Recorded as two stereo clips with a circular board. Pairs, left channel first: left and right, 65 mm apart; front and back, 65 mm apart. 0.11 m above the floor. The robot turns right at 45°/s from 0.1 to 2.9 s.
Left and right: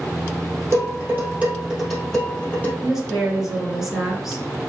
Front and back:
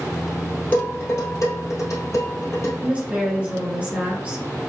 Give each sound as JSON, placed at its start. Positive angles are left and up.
{"t": 0.7, "sound": "dishes clattering", "azimuth_deg": -60, "distance_m": 1.9}
{"t": 2.8, "sound": "a woman speaking", "azimuth_deg": -160, "distance_m": 1.7}